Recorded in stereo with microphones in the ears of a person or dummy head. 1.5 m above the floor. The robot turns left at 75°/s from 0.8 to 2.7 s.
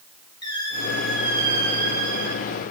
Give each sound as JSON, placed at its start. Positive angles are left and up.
{"t": 0.4, "sound": "a squeak", "azimuth_deg": 20, "distance_m": 1.7}